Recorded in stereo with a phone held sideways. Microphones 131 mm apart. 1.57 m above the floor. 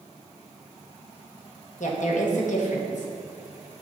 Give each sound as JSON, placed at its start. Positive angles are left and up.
{"t": 1.8, "sound": "a woman speaking", "side_deg": 70, "distance_m": 1.4}